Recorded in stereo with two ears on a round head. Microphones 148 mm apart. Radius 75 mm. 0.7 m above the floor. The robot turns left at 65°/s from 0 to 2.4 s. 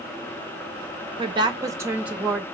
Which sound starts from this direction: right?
A woman speaking, at 1.2 s.